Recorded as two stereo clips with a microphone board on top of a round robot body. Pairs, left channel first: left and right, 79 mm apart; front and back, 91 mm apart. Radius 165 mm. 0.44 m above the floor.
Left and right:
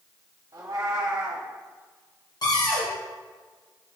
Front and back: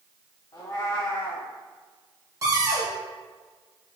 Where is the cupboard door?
125° left, 1.6 m.